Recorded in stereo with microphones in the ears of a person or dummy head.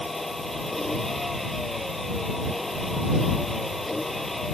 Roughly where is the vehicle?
Centre.